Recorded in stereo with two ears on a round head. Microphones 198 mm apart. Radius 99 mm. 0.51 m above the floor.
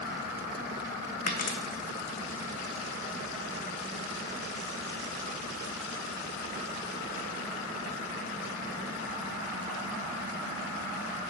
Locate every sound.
1.3 s a dropped coin: 40° left (ahead or behind), 1.3 m